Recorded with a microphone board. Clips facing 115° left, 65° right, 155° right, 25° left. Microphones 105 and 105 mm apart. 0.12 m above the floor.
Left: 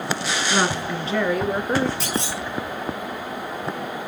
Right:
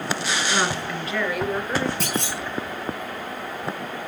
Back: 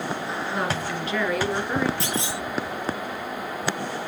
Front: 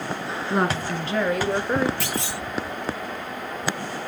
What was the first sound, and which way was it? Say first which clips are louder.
A woman speaking: left 4 dB, front 6 dB; 40° left.